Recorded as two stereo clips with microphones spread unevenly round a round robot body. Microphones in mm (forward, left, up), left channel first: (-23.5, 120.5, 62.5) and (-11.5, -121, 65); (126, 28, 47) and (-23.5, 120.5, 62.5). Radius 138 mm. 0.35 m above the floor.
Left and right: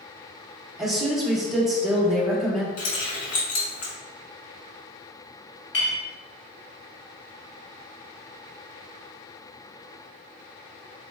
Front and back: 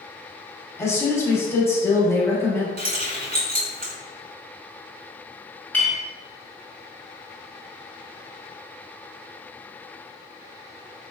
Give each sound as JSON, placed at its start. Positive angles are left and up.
{"t": 0.8, "sound": "a woman speaking", "azimuth_deg": 0, "distance_m": 1.1}
{"t": 2.8, "sound": "keys jangling", "azimuth_deg": 110, "distance_m": 1.8}
{"t": 5.7, "sound": "a clink", "azimuth_deg": 50, "distance_m": 1.7}